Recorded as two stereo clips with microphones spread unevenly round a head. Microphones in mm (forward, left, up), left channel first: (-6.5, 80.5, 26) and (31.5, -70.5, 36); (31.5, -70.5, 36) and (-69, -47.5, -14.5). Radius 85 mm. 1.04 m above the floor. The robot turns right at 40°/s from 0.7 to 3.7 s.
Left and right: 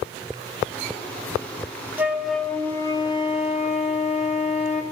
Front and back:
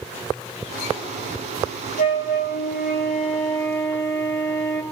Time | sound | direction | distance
2.0 | a flute | 5° left | 1.1 m